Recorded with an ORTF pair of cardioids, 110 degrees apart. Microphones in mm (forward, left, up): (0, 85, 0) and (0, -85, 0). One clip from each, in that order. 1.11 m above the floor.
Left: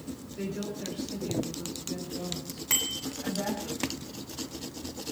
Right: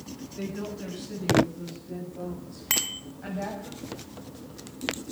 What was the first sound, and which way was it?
A woman speaking, 15° right.